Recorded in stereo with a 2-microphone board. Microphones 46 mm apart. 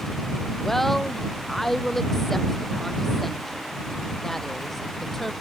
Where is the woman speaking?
5° left (ahead or behind).